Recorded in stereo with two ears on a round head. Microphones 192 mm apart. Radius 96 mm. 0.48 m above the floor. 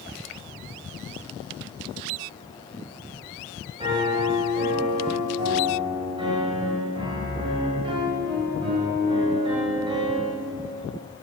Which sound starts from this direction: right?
A piano, at 3.8 s.